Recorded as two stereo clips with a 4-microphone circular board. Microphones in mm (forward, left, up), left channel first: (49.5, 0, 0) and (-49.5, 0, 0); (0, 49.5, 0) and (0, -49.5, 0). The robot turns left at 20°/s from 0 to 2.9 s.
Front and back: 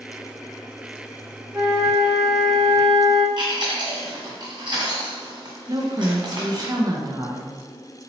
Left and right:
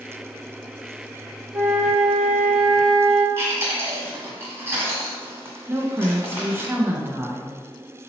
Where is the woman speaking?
145° right, 0.5 m.